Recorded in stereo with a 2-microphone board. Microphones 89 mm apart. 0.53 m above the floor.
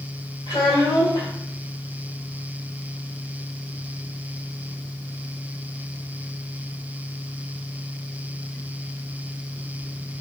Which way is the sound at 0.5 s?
60° left (ahead or behind).